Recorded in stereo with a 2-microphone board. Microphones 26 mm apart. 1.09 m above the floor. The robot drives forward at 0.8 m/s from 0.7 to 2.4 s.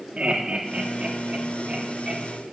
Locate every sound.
0.2 s laughter: 55° right (ahead or behind), 2.5 m; by 2.4 s 35° right (ahead or behind), 3.5 m